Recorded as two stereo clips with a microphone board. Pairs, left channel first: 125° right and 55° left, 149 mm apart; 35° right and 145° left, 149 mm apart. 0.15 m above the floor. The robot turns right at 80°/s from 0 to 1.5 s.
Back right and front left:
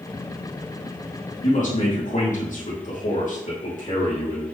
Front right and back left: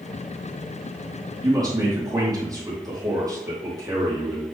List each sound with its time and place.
1.4 s a man speaking: 155° right, 4 m; by 4.4 s 150° right, 4 m